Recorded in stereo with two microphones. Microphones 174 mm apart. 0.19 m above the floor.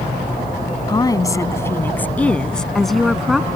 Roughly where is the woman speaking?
Left.